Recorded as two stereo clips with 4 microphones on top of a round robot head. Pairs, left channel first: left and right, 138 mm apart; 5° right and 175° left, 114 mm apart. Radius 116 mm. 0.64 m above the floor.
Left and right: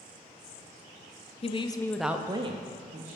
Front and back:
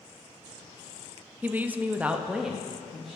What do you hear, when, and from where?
1.4 s a woman speaking: 105° left, 0.8 m; by 3.2 s 95° right, 1.2 m